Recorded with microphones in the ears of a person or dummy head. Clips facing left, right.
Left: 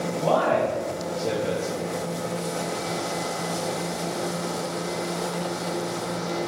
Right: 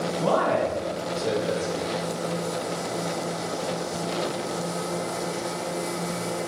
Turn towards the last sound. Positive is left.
turn(degrees=-70)  # may be behind; listen again after turning